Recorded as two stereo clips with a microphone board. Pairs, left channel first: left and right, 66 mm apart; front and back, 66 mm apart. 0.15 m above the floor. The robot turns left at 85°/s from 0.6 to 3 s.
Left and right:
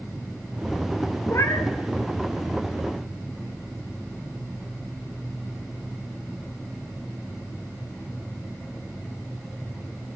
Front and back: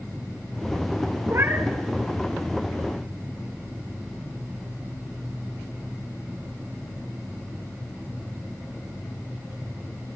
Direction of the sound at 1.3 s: 140° left.